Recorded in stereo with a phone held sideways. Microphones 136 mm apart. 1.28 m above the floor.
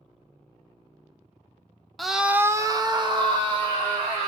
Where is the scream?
Centre (ahead or behind), 0.6 m; by 4.3 s 40° right (ahead or behind), 1.3 m.